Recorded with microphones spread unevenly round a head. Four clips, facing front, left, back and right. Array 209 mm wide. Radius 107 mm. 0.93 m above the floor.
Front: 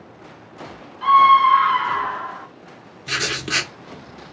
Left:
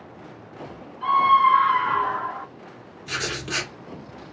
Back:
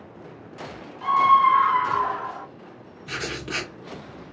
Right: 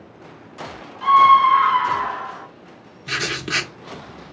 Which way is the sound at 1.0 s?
65° right.